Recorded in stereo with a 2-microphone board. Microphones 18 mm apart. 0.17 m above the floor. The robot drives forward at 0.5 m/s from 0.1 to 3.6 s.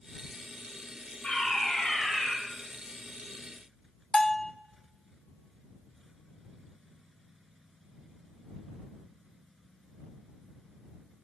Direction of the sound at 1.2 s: 75° left (ahead or behind).